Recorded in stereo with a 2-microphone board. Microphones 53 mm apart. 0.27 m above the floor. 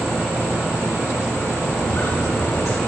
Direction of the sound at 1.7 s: 60° left (ahead or behind).